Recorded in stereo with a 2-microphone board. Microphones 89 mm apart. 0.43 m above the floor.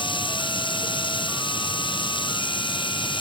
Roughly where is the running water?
Left.